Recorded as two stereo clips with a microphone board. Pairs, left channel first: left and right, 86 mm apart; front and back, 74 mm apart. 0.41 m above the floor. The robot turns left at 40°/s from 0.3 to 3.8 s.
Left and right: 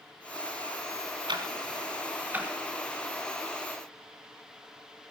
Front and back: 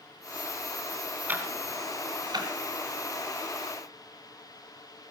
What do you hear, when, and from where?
1.3 s ticking: 115° right, 3 m; by 2.5 s 165° right, 3 m